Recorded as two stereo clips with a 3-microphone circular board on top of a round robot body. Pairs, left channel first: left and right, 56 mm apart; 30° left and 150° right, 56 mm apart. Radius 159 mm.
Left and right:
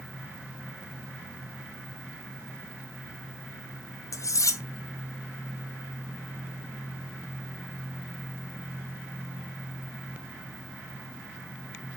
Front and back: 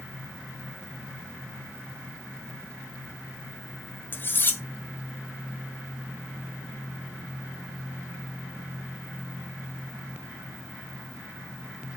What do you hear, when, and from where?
4.1 s cutlery clinking: 80° left, 1.4 m